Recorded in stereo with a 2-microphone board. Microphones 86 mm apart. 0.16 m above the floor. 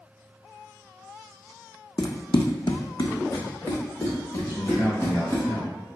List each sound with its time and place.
2.0 s running footsteps: 50° left (ahead or behind), 0.5 m; by 5.4 s 25° left (ahead or behind), 2.5 m
4.4 s a man speaking: 5° right (ahead or behind), 1.3 m